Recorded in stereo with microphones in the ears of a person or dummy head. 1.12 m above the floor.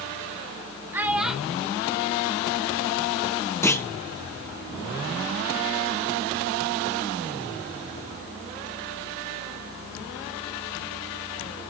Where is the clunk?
15° left (ahead or behind), 0.7 m.